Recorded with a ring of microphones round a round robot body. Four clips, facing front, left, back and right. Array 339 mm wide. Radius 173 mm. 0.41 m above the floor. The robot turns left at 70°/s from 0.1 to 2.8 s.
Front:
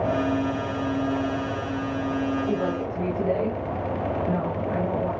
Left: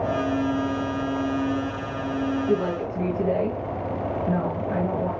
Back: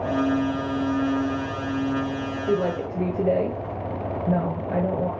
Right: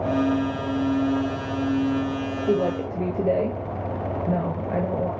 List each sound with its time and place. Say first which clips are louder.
2.5 s a woman speaking: right 1 dB, back 2 dB; 115° right, 1.5 m; by 5.1 s 135° right, 1.5 m